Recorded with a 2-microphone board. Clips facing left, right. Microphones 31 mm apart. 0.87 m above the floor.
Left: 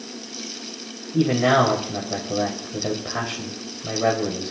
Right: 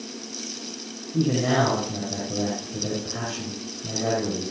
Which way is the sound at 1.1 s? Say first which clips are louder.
Left 4 dB; 40° left (ahead or behind).